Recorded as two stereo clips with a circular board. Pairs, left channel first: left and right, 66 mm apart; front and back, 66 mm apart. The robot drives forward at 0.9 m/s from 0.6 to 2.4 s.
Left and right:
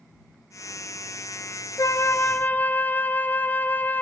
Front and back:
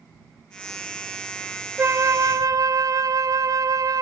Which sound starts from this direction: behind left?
A flute, at 1.8 s.